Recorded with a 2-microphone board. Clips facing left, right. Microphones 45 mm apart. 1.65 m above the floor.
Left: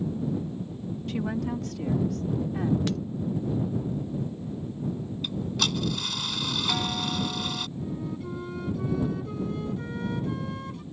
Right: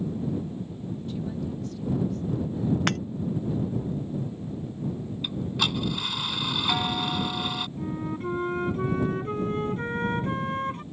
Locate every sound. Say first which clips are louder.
1.1 s a woman speaking: left 5 dB; 80° left; by 2.8 s 75° left (ahead or behind)
2.9 s breaking glass: right 3 dB; 60° right (ahead or behind)
5.2 s ticking: right 1 dB; 15° right (ahead or behind)
7.8 s a flute: right 2 dB; 40° right (ahead or behind)